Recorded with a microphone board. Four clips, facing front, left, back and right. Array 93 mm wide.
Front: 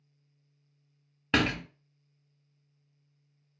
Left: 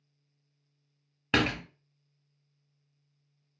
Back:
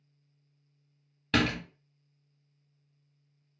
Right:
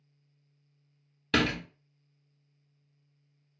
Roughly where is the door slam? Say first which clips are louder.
Even, even; ahead left.